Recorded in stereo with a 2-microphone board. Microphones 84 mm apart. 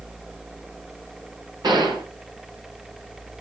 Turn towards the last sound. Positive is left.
turn(degrees=-55)  # may be behind; listen again after turning